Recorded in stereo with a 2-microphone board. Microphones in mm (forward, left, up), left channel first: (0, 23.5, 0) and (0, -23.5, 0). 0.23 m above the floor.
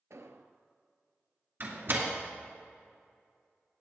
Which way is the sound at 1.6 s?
55° right (ahead or behind).